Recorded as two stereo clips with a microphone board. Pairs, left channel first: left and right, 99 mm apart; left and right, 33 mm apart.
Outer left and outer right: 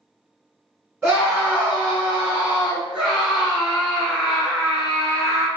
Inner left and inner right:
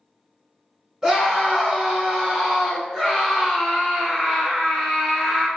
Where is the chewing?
No chewing in this recording.